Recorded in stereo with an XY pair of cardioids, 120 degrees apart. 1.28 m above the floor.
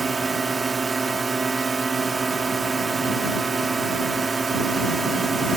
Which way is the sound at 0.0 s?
25° right.